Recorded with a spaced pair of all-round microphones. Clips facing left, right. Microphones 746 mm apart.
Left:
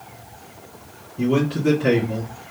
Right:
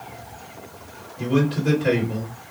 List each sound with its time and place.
1.2 s a man speaking: 75° left (ahead or behind), 2 m